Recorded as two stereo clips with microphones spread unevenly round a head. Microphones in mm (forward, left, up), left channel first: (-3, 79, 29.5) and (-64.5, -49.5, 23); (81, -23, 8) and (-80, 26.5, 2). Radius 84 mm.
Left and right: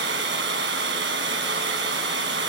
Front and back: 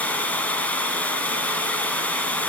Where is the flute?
No flute in this recording.